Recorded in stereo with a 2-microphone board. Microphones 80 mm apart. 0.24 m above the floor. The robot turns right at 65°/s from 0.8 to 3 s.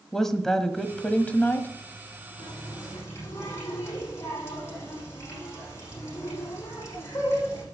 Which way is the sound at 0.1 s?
5° left (ahead or behind).